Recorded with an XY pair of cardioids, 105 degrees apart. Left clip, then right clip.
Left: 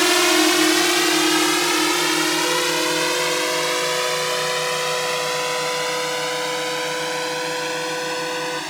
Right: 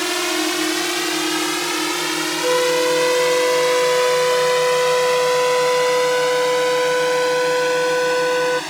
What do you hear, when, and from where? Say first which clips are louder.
0.0 s a drone: left 4 dB; 35° left; by 8.7 s 5° right
2.4 s a flute: right 3 dB; 45° right